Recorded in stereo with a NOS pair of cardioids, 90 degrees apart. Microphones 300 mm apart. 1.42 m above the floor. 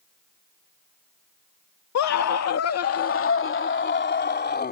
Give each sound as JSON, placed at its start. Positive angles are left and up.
{"t": 1.9, "sound": "a scream", "azimuth_deg": 65}